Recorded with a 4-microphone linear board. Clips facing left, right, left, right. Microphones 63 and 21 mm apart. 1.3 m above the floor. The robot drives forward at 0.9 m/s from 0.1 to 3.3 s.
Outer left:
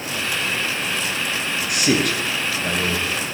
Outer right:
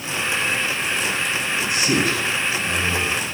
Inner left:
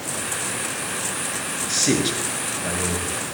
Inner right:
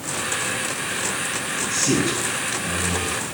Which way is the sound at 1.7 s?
80° left.